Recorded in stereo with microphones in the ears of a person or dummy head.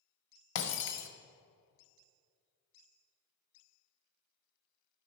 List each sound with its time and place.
0.6 s breaking glass: 75° left (ahead or behind), 1.3 m